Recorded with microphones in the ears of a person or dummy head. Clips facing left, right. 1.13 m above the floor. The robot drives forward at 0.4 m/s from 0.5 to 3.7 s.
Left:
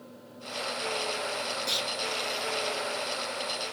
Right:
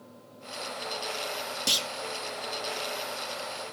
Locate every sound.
1.7 s a clunk: 35° right (ahead or behind), 0.7 m; by 1.9 s 40° right (ahead or behind), 0.6 m